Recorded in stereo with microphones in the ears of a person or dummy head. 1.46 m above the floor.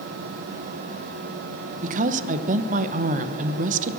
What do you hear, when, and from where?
1.8 s a woman speaking: 50° right (ahead or behind), 0.8 m